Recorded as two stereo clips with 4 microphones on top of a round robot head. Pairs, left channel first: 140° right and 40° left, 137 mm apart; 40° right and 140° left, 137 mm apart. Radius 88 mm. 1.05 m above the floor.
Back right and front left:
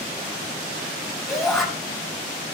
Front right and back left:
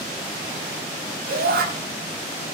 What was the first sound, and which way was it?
A shout, 130° left.